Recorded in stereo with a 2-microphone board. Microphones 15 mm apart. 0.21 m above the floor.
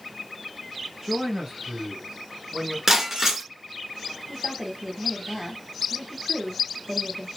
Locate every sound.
1.0 s a man speaking: 35° right (ahead or behind), 4 m; by 2.8 s 30° right (ahead or behind), 3 m
2.9 s breaking glass: 35° right (ahead or behind), 1.2 m
4.3 s a woman speaking: 10° right (ahead or behind), 1.1 m